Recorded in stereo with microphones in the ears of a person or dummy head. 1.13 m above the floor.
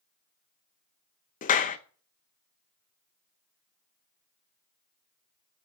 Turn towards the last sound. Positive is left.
turn(degrees=45)  # may be behind; listen again after turning